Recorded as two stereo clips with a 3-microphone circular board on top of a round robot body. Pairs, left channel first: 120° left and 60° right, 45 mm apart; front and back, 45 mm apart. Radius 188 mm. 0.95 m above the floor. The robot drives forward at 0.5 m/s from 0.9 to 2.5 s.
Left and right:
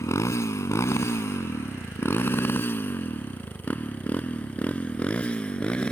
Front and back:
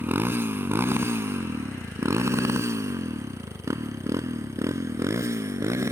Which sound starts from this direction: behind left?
A motorcycle, at 0.0 s.